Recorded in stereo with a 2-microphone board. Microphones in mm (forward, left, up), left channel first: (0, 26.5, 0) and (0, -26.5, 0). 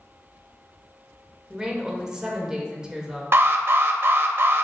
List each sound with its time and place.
1.5 s a woman speaking: 15° right (ahead or behind), 1.3 m
3.3 s an alarm: 50° right (ahead or behind), 0.7 m